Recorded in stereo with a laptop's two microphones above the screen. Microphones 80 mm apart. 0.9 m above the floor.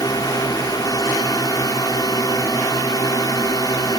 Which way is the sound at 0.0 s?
55° left (ahead or behind).